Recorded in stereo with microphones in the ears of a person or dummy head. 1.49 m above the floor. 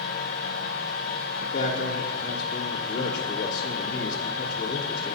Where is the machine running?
65° left (ahead or behind), 1.0 m.